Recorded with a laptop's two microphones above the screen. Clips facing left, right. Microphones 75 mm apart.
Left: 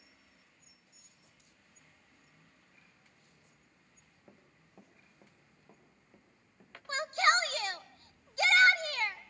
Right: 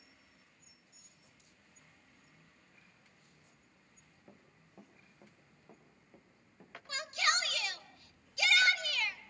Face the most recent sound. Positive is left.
turn(degrees=35)  # may be behind; listen again after turning